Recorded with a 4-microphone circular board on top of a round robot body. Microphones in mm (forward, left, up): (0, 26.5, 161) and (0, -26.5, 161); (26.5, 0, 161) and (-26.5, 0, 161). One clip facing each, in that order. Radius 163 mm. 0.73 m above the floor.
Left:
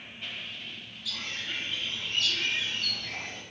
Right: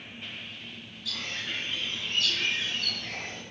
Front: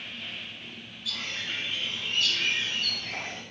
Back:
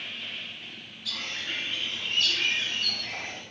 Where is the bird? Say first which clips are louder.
Right 1 dB, even; 140° right, 1.8 m.